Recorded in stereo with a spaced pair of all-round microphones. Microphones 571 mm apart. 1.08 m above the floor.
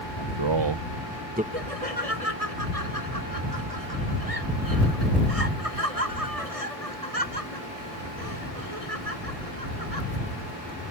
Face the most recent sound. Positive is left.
turn(degrees=-80)